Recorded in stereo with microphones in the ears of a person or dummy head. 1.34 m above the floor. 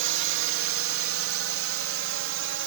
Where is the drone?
65° right (ahead or behind); by 2.7 s 60° right (ahead or behind).